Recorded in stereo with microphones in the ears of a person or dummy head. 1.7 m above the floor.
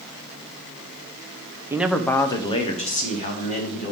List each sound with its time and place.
1.7 s a man speaking: 10° right (ahead or behind), 0.7 m; by 3.9 s 50° left (ahead or behind), 2 m